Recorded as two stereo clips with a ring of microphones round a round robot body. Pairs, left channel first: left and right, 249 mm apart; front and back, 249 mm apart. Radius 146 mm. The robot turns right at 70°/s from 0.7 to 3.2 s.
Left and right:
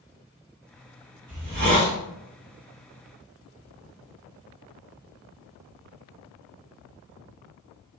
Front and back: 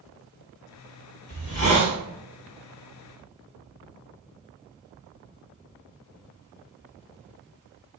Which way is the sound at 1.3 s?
60° right.